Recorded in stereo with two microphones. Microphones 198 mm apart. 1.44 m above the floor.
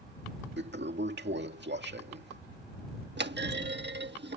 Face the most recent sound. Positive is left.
turn(degrees=-60)  # may be behind; listen again after turning